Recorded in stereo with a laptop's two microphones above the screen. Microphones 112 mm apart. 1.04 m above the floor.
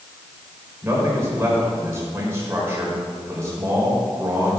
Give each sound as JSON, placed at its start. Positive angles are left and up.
{"t": 0.8, "sound": "a man speaking", "side_deg": -25, "distance_m": 3.5}